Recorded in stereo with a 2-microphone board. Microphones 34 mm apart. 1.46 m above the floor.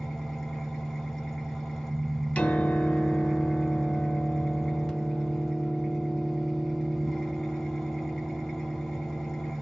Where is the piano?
45° left (ahead or behind), 1.1 m.